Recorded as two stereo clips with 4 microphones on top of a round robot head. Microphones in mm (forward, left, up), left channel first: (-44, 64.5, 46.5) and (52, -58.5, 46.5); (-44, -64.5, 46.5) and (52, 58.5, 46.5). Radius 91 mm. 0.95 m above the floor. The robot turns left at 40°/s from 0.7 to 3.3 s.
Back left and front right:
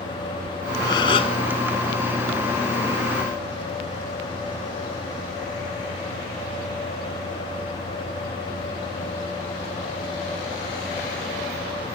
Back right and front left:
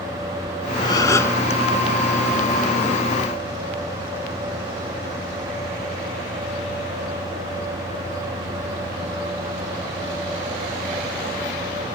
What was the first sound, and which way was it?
A gasp, straight behind.